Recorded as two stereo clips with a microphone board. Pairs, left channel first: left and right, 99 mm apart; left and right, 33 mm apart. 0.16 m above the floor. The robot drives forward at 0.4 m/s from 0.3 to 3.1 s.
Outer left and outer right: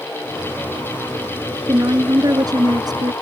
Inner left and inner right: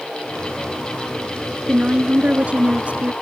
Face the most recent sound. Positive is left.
turn(degrees=-45)  # may be behind; listen again after turning